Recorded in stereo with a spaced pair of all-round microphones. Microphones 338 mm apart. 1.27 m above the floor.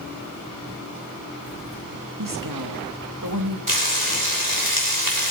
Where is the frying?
70° right (ahead or behind), 6 m.